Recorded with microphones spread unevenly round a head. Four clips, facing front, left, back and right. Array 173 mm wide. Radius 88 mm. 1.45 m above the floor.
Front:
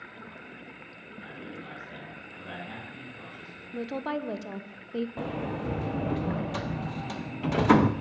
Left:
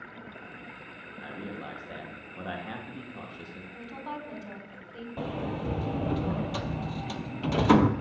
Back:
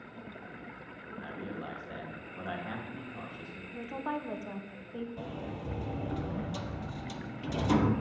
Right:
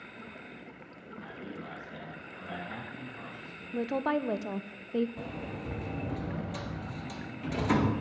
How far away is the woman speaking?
About 0.7 m.